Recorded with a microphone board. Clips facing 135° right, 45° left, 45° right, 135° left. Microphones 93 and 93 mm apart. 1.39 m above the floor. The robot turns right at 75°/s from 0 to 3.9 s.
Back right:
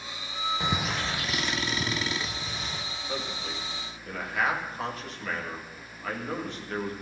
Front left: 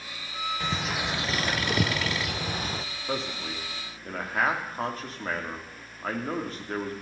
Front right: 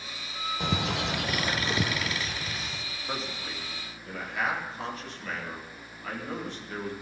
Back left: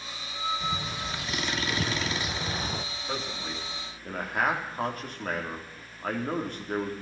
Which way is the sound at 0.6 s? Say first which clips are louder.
Front left 1 dB, front right 3 dB; 65° right.